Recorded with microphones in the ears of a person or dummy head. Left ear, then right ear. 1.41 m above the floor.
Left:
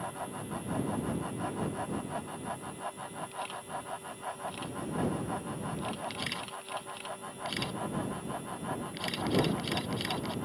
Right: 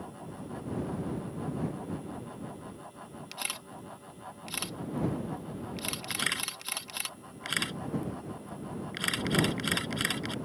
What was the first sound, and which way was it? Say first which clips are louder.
A camera shutter: right 4 dB; 70° right (ahead or behind).